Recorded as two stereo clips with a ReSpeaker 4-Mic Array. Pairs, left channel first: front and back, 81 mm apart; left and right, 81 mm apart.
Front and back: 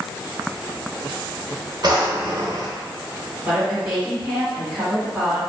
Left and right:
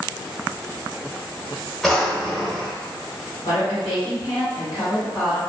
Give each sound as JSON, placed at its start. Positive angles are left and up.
{"t": 1.8, "sound": "a drawer", "azimuth_deg": 175, "distance_m": 0.7}
{"t": 3.5, "sound": "a woman speaking", "azimuth_deg": 105, "distance_m": 1.5}